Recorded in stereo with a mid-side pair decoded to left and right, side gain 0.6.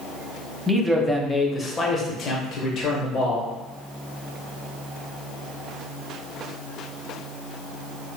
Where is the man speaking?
15° right, 0.8 m; by 3.5 s 65° left, 1.4 m.